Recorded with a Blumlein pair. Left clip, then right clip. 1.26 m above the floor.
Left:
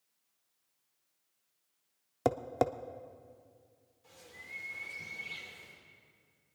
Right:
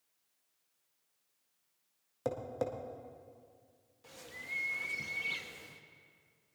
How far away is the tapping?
About 0.6 m.